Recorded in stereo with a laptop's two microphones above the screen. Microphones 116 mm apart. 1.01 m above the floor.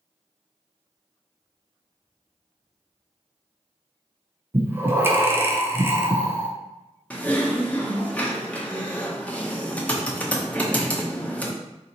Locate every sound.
4.5 s breathing: 20° right (ahead or behind), 0.5 m
7.1 s typing on a keyboard: 10° left (ahead or behind), 0.8 m